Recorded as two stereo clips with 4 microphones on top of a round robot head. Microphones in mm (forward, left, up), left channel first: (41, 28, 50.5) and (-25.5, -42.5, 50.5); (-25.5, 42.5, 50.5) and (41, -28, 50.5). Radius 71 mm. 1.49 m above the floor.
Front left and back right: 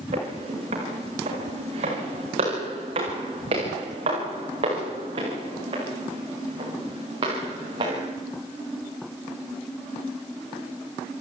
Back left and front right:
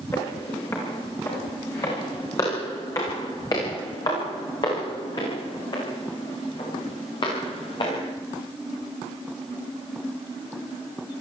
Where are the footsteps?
160° right, 8.5 m; by 8.1 s 175° left, 10.5 m.